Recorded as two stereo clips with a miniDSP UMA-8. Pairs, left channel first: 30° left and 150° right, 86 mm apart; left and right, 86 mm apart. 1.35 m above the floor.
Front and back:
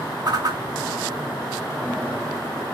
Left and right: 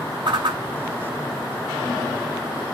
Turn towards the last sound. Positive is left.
turn(degrees=-110)